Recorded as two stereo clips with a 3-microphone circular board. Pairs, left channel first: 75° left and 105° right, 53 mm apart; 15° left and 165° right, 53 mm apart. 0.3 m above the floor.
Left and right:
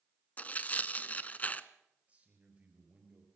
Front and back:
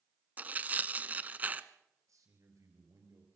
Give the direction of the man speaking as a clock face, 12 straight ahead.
6 o'clock.